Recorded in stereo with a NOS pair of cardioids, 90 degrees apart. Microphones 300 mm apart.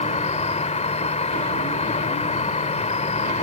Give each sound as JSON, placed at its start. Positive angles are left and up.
{"t": 0.0, "sound": "an insect", "azimuth_deg": 20}